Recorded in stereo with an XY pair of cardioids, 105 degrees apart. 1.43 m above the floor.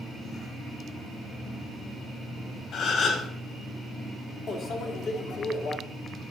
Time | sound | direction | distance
2.7 | a gasp | 60° left | 3 m
4.5 | a microwave | 60° left | 2 m